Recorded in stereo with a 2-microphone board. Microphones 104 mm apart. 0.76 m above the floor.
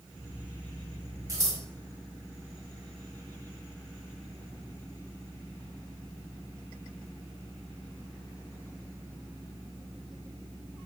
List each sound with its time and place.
1.3 s scissors: 35° right (ahead or behind), 1.3 m